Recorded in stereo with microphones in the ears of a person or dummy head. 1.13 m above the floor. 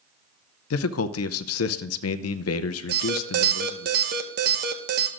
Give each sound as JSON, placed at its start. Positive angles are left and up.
{"t": 0.7, "sound": "a man speaking", "side_deg": 70, "distance_m": 0.5}
{"t": 2.9, "sound": "an alarm", "side_deg": -50, "distance_m": 0.8}